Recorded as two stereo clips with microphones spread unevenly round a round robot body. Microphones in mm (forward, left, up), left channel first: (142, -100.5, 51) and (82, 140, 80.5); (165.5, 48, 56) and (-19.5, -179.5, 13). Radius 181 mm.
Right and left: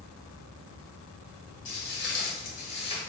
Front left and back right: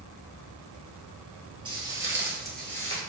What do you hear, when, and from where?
1.6 s footsteps: 50° right, 1.2 m; by 3.0 s 5° right, 1.0 m